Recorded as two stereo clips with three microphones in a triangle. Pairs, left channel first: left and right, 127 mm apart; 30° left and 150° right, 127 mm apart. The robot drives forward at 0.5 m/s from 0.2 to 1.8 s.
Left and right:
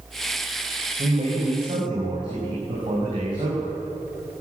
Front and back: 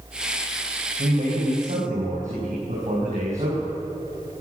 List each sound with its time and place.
1.0 s a man speaking: 135° right, 6 m; by 3.7 s 140° right, 6 m